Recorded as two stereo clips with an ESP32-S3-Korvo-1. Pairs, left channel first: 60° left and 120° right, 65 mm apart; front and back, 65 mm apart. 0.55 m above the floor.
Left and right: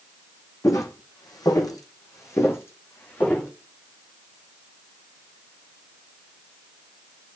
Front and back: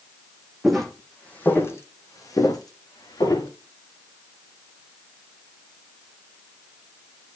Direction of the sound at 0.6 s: 90° left.